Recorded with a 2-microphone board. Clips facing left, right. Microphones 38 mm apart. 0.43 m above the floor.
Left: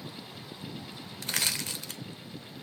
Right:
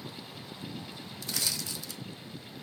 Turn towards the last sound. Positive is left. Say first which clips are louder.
# left 4 dB
turn(degrees=55)  # may be behind; listen again after turning